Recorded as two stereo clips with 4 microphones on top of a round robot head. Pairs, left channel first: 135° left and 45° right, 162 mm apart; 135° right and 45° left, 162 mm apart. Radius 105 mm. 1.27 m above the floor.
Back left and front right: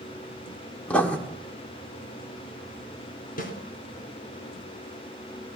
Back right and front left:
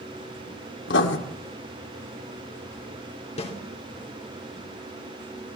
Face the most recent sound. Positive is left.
turn(degrees=170)